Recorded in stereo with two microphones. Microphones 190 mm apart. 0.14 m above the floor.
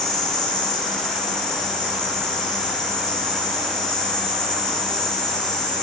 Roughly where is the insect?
Left.